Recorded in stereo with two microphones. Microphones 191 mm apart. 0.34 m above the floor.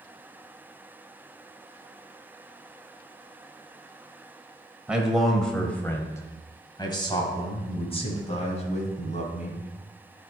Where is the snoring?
I don't hear snoring.